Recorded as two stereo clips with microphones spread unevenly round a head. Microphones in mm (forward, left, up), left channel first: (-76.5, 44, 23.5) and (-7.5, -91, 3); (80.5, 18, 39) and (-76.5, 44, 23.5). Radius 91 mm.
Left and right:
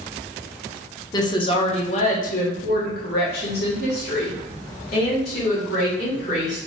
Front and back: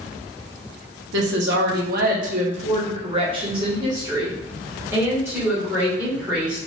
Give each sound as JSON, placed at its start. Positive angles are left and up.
{"t": 1.1, "sound": "a woman speaking", "azimuth_deg": 175, "distance_m": 1.1}